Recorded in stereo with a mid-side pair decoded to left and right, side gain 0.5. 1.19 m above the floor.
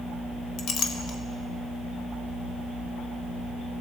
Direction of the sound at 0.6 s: 60° left.